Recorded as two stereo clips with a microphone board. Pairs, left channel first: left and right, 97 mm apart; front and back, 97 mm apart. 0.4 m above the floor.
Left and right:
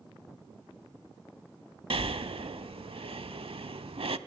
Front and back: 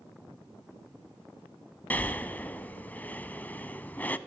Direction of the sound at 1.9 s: 70° right.